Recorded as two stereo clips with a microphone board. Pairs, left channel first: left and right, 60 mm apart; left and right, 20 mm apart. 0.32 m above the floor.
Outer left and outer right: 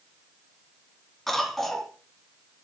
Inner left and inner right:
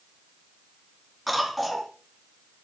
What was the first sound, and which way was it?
A cough, 5° left (ahead or behind).